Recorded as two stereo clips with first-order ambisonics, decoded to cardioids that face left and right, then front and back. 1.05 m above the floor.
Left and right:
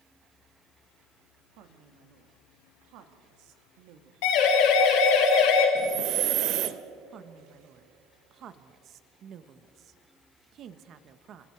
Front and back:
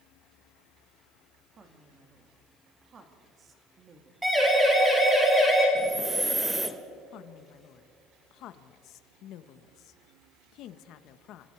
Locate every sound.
1.6 s a woman speaking: 115° right, 2 m
4.2 s a siren: 95° left, 7 m; by 5.7 s 90° left, 7.5 m
5.8 s breathing: 100° right, 0.9 m
7.1 s a woman speaking: 40° right, 1.1 m